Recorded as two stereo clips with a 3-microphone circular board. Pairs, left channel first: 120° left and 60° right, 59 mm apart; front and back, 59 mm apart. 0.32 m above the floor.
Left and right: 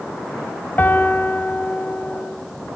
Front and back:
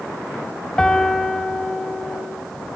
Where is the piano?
75° left, 1.4 m.